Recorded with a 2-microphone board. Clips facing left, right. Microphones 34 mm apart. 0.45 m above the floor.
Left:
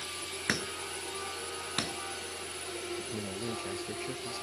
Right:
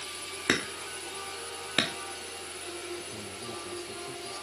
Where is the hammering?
60° right (ahead or behind).